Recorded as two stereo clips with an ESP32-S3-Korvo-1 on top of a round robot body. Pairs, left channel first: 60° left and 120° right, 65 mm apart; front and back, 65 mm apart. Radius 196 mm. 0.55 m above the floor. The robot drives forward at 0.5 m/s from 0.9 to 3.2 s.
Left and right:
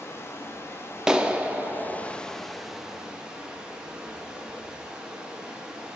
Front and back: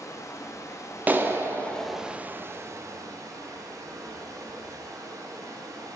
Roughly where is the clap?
Behind.